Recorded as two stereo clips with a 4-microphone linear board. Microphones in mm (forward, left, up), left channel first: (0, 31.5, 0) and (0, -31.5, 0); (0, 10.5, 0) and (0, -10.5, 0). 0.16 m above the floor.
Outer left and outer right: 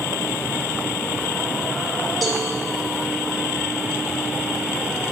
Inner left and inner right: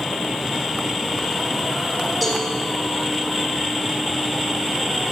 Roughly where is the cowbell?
Centre.